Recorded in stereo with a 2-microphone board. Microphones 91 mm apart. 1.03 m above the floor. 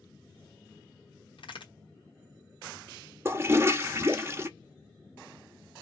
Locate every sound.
1.4 s a crack: 65° left (ahead or behind), 1.1 m
3.2 s a toilet flushing: 25° right (ahead or behind), 0.5 m